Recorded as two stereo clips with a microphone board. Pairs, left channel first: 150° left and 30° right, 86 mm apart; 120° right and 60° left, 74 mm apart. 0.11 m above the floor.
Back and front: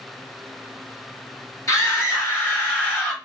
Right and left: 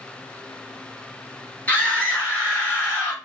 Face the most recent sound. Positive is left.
turn(degrees=-145)